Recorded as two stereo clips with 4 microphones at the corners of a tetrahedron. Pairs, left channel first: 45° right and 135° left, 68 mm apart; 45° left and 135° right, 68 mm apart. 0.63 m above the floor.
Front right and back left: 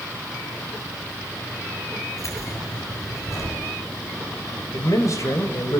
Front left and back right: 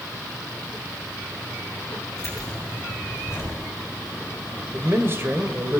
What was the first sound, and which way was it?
Keys jangling, 5° right.